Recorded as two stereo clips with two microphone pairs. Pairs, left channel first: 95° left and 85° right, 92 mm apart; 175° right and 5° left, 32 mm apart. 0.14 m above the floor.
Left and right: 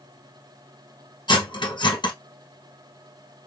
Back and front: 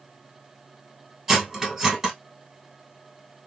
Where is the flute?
I don't hear a flute.